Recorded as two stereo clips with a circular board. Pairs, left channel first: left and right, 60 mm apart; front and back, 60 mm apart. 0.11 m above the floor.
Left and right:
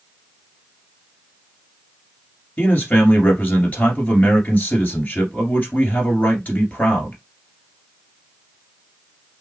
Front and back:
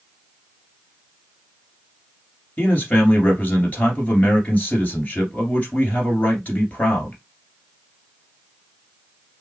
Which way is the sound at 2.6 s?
45° left.